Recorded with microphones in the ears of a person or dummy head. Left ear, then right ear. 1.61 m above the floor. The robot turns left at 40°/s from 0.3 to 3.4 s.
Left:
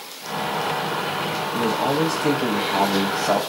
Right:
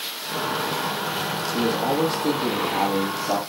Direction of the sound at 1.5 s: 160° left.